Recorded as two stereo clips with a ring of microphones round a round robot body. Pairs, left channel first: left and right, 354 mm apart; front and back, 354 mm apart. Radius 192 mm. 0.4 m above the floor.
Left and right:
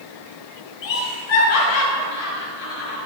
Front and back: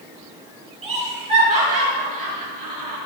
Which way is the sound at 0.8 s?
105° left.